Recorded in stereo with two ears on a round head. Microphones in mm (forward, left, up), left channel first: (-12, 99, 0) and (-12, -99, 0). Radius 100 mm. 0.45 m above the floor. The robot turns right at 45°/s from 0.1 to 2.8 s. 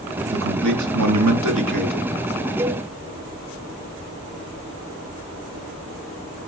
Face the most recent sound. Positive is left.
turn(degrees=-15)  # may be behind; listen again after turning